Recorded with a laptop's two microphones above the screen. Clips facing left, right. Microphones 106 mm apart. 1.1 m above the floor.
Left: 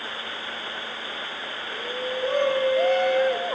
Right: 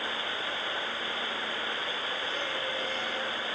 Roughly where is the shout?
Left.